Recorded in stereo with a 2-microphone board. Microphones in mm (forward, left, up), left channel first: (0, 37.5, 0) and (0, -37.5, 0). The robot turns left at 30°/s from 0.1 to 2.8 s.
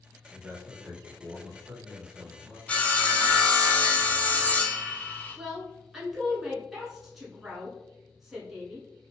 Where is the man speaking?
5° right (ahead or behind), 1.1 m; by 2.6 s 20° left (ahead or behind), 1.1 m.